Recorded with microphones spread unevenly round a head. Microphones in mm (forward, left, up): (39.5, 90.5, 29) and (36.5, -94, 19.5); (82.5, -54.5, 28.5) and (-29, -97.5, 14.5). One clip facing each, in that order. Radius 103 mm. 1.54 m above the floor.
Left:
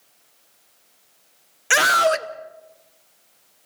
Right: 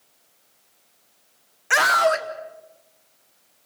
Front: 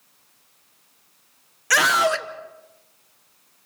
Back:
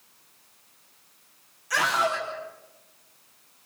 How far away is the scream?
About 1.0 m.